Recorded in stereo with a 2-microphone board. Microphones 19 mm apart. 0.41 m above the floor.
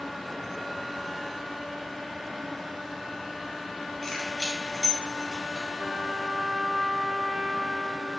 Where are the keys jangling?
10° left (ahead or behind), 3 m; by 5.7 s 5° left (ahead or behind), 1.9 m.